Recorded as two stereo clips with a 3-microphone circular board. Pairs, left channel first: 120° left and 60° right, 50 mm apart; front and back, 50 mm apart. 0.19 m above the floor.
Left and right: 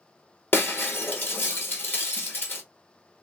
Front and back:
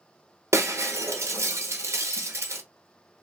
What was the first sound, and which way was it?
Breaking glass, 160° left.